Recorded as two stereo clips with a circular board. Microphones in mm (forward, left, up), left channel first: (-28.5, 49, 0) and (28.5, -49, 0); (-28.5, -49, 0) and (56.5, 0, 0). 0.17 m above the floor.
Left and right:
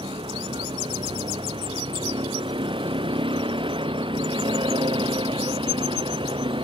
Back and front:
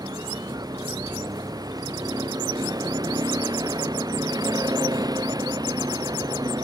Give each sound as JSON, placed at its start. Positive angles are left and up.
{"t": 0.0, "sound": "a vehicle", "azimuth_deg": -20}